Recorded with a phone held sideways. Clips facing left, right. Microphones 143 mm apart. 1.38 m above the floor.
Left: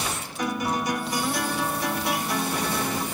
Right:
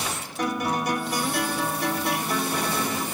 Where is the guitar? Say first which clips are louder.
Right 1 dB; 55° right (ahead or behind), 2 m.